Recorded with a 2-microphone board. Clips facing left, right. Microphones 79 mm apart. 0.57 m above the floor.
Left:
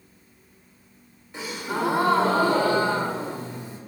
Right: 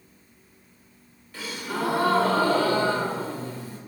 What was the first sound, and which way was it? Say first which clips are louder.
A gasp: left 2 dB; 25° left (ahead or behind).